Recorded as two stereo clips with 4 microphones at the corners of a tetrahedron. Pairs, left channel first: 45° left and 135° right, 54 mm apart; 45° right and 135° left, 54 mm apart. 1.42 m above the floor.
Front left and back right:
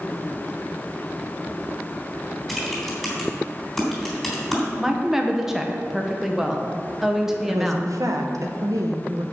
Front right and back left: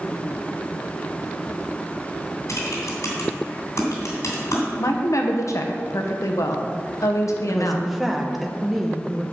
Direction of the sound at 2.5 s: 45° right.